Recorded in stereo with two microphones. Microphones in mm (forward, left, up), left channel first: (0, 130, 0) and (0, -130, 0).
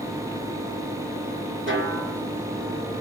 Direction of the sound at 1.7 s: 50° right (ahead or behind).